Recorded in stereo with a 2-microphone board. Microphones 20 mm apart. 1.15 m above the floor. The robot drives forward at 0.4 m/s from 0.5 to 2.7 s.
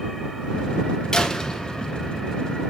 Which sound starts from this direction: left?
A door slam, at 1.1 s.